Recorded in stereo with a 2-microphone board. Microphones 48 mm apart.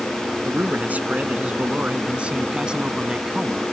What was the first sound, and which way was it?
A man speaking, 35° right (ahead or behind).